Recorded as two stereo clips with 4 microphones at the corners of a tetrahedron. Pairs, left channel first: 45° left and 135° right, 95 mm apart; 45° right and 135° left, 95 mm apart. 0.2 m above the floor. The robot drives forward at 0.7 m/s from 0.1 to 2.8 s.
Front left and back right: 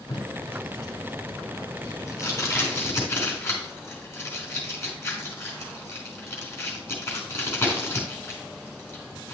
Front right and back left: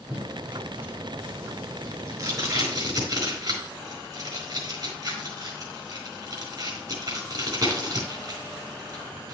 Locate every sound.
0.1 s tape being pulled: 70° left, 3 m; by 9.3 s 105° left, 3 m